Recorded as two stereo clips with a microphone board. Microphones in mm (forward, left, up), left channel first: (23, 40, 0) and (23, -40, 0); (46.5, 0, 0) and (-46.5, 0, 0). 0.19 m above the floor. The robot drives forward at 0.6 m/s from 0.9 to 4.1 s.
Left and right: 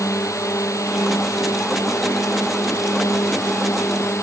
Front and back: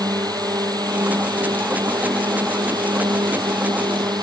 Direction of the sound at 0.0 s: 135° left.